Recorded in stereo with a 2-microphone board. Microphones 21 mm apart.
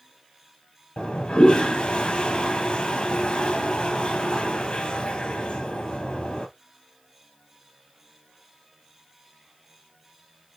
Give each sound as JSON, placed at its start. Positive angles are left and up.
{"t": 1.0, "sound": "a toilet flushing", "side_deg": 55, "distance_m": 1.3}